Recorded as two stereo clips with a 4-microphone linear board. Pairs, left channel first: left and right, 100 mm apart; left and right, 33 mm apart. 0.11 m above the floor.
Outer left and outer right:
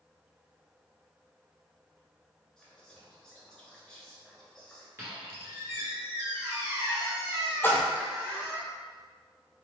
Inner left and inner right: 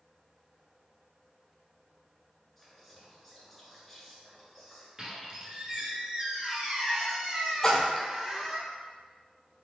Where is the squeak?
30° right (ahead or behind), 1.3 m.